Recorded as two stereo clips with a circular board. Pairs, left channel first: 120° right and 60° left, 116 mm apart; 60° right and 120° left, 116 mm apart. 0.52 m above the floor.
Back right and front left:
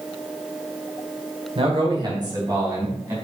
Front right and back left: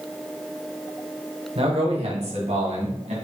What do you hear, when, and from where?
1.6 s a man speaking: 95° left, 1.9 m; by 3.1 s 125° left, 3.5 m